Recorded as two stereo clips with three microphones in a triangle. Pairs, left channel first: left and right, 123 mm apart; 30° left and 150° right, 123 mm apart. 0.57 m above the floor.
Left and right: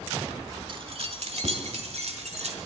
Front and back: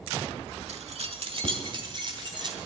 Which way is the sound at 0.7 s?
135° right.